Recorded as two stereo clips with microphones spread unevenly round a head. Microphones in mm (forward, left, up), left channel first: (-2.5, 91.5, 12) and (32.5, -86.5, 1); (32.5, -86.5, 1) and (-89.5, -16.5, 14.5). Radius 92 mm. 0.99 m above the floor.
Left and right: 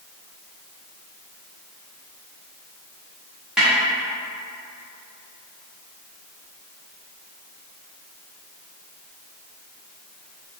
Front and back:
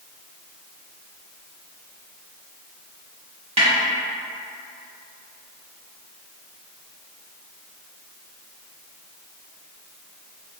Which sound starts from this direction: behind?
A snare drum, at 3.6 s.